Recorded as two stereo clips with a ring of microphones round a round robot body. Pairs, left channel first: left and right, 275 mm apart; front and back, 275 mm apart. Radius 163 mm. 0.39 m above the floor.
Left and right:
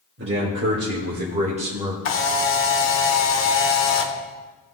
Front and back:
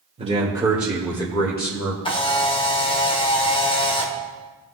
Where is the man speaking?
120° right, 1.6 m; by 1.9 s 20° right, 1.5 m.